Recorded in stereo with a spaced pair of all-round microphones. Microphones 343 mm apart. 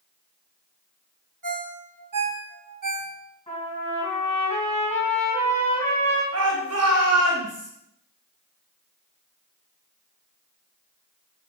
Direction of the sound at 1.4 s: 65° right (ahead or behind).